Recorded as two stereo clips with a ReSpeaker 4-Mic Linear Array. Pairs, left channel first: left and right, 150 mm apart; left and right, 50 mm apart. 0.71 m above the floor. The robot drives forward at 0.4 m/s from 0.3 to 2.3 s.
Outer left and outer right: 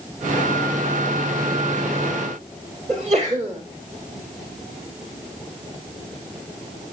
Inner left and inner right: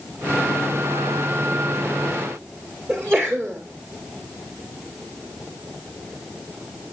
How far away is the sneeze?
About 2 m.